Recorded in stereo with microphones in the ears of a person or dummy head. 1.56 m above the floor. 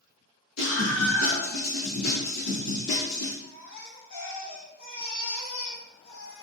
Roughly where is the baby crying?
Left.